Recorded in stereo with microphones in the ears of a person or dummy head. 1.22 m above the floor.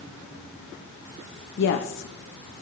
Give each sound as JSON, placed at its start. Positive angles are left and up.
{"t": 1.6, "sound": "a woman speaking", "side_deg": 65, "distance_m": 1.0}